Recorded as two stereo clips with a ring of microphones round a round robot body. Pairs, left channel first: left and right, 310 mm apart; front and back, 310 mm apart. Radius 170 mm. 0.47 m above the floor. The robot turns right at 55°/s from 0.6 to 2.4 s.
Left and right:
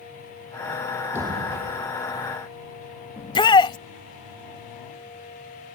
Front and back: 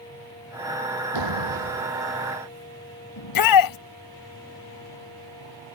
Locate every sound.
1.1 s a door slam: 175° right; by 1.9 s 130° right
3.2 s a shout: 15° left